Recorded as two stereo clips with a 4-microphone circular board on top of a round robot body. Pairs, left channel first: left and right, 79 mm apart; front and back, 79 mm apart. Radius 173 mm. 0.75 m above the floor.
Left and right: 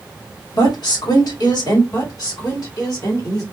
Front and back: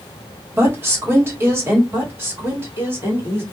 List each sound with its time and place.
0.5 s a woman speaking: 120° left, 1.5 m
1.9 s a woman speaking: 120° left, 1.7 m